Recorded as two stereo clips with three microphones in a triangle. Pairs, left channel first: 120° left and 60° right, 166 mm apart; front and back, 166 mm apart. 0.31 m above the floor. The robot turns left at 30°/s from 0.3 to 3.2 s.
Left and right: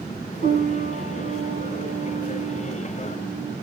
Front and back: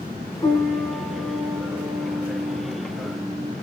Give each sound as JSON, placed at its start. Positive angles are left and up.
{"t": 0.4, "sound": "a piano", "azimuth_deg": -65, "distance_m": 1.1}